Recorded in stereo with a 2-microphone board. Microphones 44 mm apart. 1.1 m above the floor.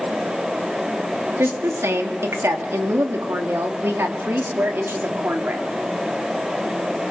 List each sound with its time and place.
1.4 s a woman speaking: 75° right (ahead or behind), 2.5 m; by 5.8 s 50° right (ahead or behind), 3 m